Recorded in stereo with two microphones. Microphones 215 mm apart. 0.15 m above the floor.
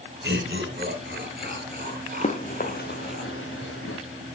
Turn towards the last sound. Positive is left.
turn(degrees=80)